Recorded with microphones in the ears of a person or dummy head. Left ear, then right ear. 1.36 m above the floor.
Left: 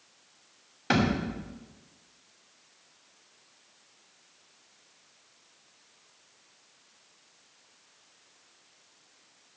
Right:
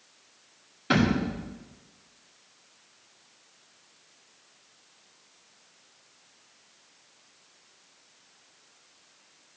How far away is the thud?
About 2.5 m.